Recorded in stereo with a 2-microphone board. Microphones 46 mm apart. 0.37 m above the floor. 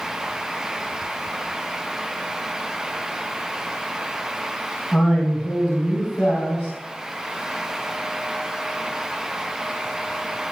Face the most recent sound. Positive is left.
turn(degrees=55)  # may be behind; listen again after turning